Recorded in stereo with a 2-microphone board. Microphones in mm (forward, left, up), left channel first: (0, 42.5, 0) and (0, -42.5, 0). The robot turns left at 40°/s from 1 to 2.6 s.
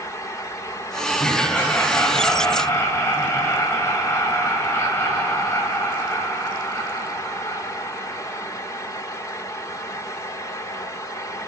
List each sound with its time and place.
1.2 s laughter: 175° left, 1.8 m; by 8.5 s 120° left, 1.8 m